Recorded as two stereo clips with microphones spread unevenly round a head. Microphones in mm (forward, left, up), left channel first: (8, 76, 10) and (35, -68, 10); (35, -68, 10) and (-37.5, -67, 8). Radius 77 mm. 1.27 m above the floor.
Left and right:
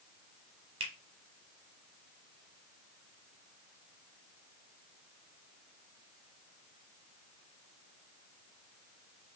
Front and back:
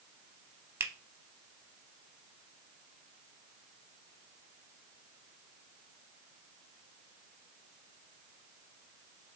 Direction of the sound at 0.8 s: 130° right.